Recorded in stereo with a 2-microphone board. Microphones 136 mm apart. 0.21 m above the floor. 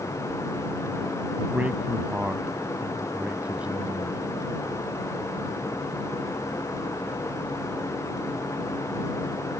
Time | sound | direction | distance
1.5 | a man speaking | 10° right (ahead or behind) | ?